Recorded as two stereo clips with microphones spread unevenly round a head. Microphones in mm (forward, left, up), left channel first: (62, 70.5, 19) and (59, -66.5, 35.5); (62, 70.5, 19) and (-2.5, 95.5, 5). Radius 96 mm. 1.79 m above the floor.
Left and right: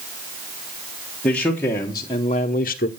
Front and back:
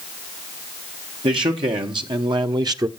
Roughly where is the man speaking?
Behind.